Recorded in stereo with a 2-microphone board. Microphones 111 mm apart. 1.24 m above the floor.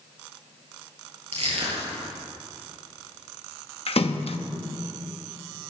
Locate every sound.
1.3 s crushing: 70° right (ahead or behind), 6 m
3.9 s a splash: 60° left (ahead or behind), 1.0 m